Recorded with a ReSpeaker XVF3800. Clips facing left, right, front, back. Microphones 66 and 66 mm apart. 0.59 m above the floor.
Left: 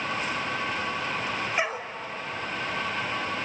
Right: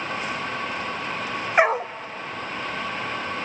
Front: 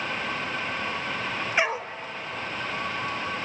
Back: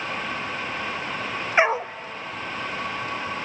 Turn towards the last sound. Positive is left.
turn(degrees=-115)